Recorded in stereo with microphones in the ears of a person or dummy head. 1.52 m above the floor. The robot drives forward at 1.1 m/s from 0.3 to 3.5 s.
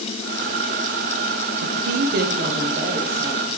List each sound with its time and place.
1.6 s a woman speaking: 75° right (ahead or behind), 0.6 m; by 3.5 s 20° right (ahead or behind), 2.0 m